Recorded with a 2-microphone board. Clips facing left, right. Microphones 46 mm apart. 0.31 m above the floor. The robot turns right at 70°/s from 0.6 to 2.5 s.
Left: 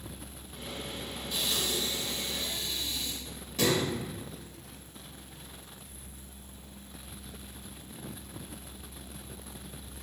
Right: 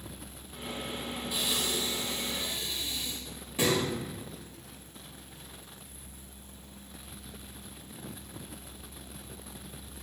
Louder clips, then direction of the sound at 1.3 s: Even; 10° right (ahead or behind).